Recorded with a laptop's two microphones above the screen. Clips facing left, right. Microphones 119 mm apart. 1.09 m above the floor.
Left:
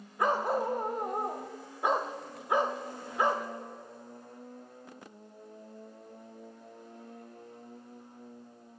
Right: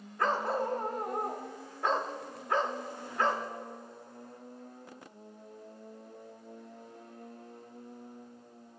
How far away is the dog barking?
About 0.6 m.